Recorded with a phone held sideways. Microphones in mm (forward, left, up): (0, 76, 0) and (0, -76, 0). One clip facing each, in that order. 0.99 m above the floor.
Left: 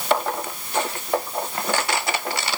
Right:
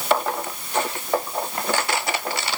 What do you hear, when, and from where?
Only background noise.